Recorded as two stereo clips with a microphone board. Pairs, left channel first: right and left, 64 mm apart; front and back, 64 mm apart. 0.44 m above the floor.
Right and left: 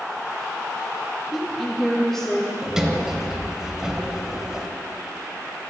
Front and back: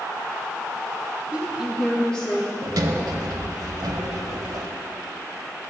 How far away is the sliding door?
About 0.8 m.